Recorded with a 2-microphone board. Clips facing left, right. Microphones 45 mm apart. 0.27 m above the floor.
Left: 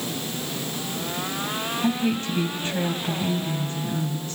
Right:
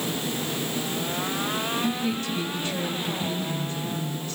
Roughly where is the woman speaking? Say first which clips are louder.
Left 3 dB; left.